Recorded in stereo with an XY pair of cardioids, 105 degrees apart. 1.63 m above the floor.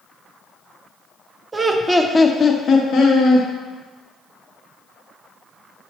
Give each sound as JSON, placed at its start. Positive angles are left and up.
{"t": 1.5, "sound": "laughter", "azimuth_deg": -30, "distance_m": 0.6}